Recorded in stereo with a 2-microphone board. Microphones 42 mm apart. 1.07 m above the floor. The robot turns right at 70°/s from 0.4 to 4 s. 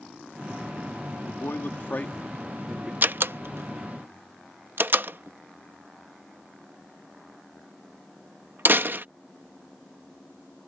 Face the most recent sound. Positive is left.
turn(degrees=-60)  # may be behind; listen again after turning